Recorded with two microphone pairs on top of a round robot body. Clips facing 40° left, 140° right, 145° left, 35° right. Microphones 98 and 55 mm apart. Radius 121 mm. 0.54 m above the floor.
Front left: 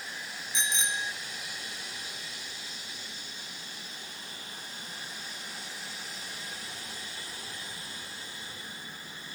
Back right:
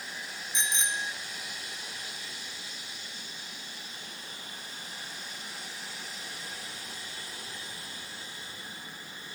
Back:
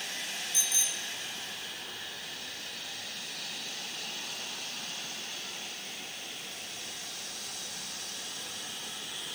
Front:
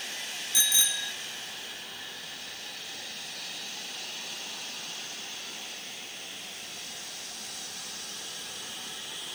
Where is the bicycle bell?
50° right.